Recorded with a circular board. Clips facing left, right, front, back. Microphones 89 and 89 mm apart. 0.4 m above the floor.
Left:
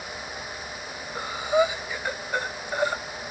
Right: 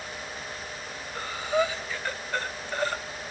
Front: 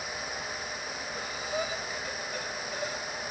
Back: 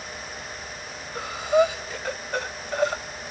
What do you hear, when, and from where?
1.1 s breathing: 165° left, 0.6 m